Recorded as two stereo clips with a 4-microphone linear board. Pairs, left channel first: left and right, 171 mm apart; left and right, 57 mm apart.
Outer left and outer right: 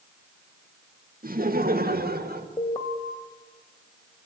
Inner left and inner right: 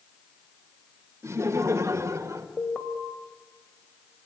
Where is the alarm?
30° left (ahead or behind), 2.5 m.